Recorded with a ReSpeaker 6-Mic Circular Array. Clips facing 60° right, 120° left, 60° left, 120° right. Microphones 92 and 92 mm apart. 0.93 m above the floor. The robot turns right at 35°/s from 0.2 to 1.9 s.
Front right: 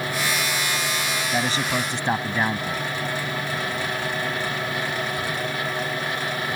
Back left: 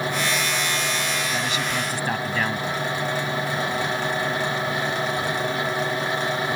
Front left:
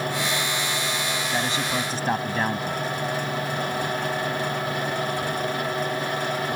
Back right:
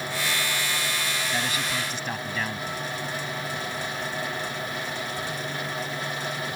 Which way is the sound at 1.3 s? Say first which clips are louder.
Front right 2 dB, front left 5 dB; 10° right.